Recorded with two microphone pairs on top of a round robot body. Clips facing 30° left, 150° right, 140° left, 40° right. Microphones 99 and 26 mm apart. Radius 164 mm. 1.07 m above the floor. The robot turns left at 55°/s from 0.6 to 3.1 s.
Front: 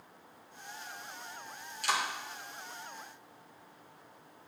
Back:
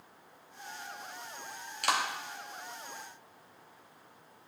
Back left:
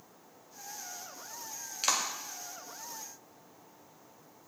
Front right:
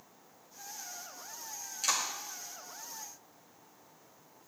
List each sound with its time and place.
1.8 s a clap: 170° right, 2.5 m; by 2.0 s straight behind, 2.5 m